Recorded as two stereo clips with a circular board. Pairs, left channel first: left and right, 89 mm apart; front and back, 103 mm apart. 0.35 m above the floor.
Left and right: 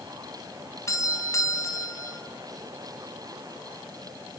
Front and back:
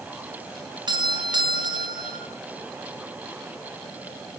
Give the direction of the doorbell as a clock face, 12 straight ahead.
7 o'clock.